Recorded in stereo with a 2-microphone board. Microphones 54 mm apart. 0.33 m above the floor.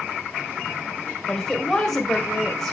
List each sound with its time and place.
1.3 s a woman speaking: 5° left (ahead or behind), 1.6 m